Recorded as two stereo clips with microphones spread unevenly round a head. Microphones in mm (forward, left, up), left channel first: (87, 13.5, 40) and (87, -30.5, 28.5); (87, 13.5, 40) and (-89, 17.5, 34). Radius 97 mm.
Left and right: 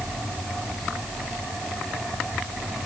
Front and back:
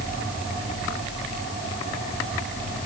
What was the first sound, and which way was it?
Only background noise.